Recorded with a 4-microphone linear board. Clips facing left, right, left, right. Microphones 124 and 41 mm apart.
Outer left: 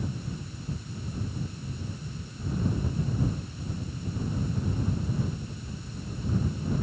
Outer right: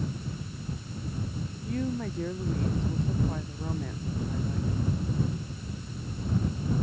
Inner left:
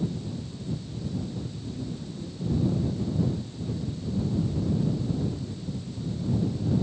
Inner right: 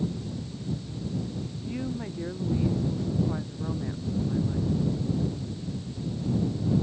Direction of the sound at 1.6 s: 85° right.